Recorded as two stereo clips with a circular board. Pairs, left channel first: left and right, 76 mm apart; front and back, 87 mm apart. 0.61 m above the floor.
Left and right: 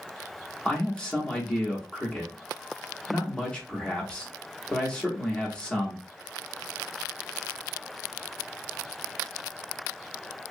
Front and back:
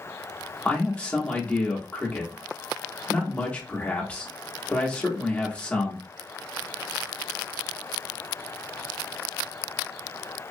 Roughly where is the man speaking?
Ahead left.